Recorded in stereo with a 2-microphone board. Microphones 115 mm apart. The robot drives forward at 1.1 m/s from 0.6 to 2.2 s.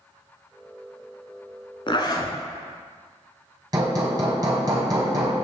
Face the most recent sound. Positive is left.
turn(degrees=-35)  # may be behind; listen again after turning